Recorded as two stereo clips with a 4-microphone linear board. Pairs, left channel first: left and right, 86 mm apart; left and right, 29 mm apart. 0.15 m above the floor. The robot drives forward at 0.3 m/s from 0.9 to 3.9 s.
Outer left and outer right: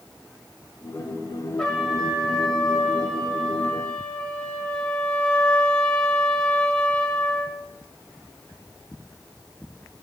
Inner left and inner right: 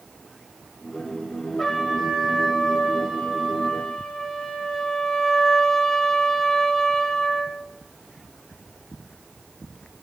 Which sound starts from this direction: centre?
A trumpet, at 1.6 s.